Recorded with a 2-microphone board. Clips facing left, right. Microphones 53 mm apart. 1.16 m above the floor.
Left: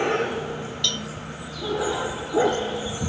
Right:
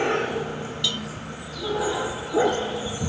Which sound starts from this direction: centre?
A cowbell, at 0.8 s.